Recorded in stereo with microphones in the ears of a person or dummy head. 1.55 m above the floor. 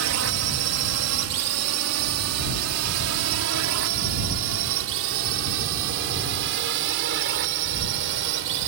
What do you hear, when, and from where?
0.0 s a drone: 70° right (ahead or behind); by 8.7 s 65° right (ahead or behind)